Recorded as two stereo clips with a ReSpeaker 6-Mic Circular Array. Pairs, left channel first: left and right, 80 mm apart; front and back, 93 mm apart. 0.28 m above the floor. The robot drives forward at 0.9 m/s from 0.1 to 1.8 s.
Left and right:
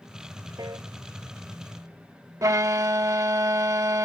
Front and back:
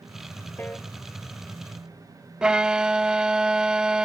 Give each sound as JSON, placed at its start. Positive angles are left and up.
{"t": 0.6, "sound": "a piano", "azimuth_deg": -65}
{"t": 2.4, "sound": "a violin", "azimuth_deg": -100}